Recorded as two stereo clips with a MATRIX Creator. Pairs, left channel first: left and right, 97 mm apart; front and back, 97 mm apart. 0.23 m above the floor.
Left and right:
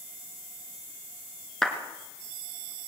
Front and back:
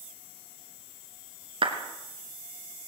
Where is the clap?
175° left, 2.5 m.